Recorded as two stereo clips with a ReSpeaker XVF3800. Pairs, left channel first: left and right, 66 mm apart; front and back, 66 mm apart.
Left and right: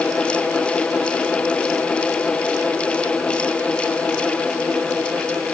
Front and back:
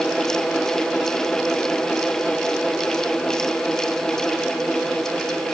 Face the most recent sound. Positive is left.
No sound to turn to.